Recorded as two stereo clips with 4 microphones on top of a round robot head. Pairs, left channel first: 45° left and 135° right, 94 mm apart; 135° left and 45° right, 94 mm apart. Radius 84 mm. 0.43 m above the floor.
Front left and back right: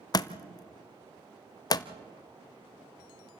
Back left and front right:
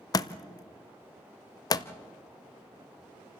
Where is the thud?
90° left, 0.8 m.